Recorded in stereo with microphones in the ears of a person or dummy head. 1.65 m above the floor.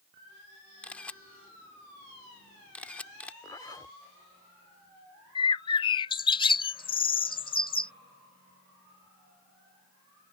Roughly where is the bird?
Left.